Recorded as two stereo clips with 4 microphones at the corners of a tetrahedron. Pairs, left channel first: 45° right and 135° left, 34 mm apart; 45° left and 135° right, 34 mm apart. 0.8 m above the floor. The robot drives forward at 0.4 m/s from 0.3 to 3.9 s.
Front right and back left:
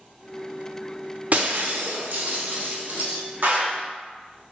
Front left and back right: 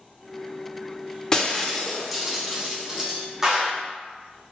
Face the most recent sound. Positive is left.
turn(degrees=155)